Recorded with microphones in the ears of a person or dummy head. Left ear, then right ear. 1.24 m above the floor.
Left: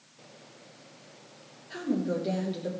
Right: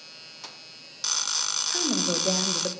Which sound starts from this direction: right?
A woman speaking, at 1.7 s.